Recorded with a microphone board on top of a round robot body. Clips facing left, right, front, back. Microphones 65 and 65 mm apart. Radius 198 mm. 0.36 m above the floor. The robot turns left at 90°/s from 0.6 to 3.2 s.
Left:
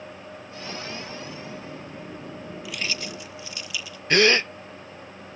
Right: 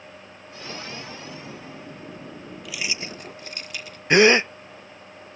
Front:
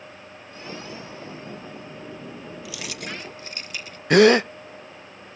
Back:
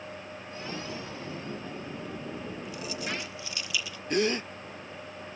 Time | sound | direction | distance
2.6 | keys jangling | 5° left | ?
4.1 | a gasp | 20° right | ?